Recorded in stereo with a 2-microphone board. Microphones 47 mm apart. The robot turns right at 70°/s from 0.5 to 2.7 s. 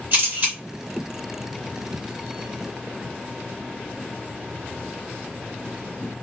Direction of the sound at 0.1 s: 40° right (ahead or behind).